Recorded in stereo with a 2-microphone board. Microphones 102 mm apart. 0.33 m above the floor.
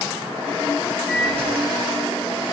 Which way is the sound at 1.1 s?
15° left (ahead or behind).